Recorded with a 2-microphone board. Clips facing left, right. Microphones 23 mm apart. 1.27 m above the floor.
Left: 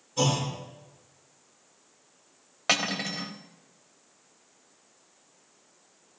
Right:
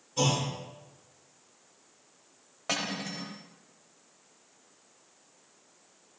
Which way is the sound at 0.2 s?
10° right (ahead or behind).